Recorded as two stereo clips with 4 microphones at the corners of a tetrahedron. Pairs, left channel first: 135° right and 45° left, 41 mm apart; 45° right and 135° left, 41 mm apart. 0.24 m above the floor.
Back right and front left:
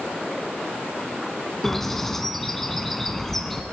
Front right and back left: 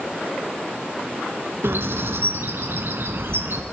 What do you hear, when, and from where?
1.6 s a bird: 140° left, 0.8 m